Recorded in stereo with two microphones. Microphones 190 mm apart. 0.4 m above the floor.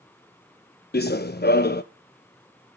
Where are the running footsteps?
60° left (ahead or behind), 0.7 m.